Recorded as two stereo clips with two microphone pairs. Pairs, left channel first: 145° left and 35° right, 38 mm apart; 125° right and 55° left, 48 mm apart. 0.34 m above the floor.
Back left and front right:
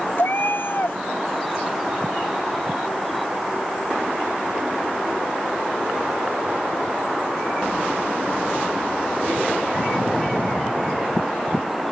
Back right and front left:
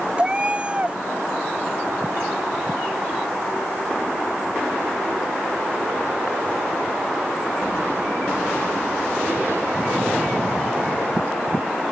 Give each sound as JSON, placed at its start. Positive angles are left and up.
{"t": 0.2, "sound": "a cat meowing", "azimuth_deg": 120}